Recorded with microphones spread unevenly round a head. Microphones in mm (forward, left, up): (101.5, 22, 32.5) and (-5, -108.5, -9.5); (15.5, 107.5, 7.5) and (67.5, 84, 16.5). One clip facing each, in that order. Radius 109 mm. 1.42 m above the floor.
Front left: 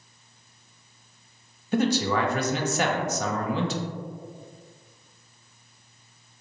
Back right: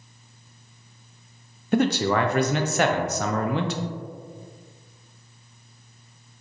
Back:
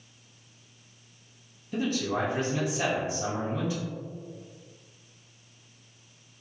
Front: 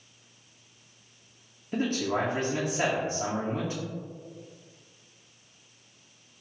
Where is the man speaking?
90° right, 0.5 m.